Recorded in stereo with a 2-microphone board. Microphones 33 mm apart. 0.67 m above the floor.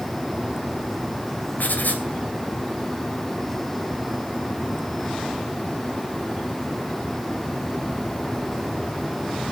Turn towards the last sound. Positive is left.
turn(degrees=75)  # may be behind; listen again after turning